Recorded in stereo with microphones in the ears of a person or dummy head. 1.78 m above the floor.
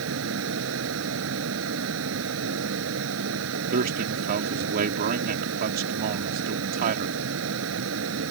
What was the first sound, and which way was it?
A fan, 75° right (ahead or behind).